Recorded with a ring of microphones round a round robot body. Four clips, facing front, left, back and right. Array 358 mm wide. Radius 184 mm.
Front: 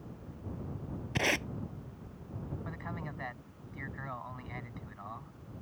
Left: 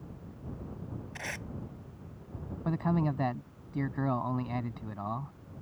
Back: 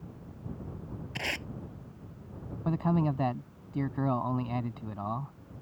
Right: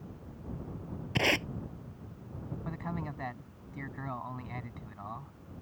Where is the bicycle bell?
No bicycle bell in this recording.